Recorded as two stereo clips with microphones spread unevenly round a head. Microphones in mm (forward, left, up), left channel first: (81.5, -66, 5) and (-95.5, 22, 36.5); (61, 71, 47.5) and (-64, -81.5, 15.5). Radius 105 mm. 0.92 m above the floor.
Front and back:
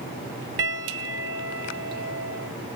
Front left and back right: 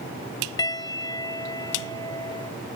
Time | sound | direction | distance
0.6 | a piano | 120° left | ?